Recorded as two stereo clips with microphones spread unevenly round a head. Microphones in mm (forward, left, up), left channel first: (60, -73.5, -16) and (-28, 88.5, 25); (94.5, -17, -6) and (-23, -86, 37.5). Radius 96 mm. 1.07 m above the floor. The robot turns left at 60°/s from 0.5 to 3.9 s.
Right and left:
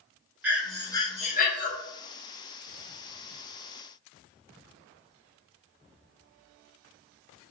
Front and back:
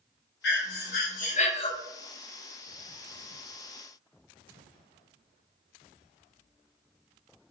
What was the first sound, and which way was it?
Breathing, 40° left.